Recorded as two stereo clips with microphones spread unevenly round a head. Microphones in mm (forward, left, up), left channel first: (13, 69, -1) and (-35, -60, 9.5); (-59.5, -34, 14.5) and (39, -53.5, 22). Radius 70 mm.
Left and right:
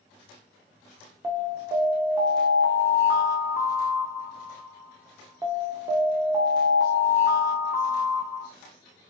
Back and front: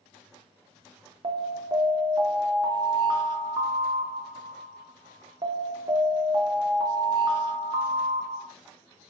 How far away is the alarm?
About 0.5 m.